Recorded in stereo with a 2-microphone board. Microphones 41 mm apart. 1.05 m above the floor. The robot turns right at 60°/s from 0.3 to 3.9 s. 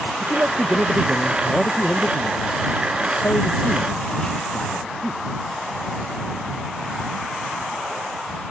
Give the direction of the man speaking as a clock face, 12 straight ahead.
2 o'clock.